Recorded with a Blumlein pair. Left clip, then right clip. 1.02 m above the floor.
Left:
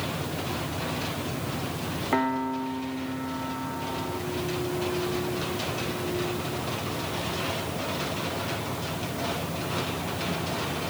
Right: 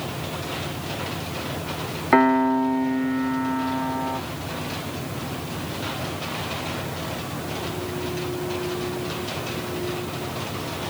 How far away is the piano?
About 1.1 m.